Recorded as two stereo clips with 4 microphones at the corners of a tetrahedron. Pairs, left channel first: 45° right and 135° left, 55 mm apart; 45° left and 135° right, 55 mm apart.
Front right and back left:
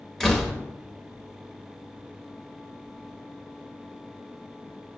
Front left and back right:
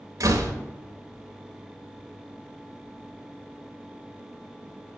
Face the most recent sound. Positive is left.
turn(degrees=-125)